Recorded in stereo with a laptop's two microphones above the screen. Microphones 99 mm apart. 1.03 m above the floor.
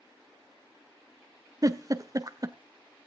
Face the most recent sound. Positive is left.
turn(degrees=-40)  # may be behind; listen again after turning